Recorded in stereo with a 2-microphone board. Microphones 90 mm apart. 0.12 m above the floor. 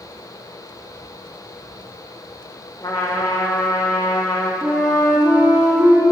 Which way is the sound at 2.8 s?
50° left (ahead or behind).